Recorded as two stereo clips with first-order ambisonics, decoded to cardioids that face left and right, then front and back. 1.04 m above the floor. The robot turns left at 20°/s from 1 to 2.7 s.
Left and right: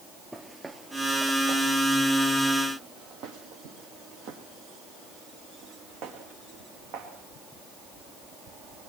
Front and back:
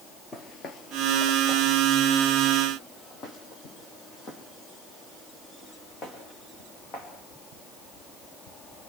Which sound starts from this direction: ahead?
Footsteps, at 0.3 s.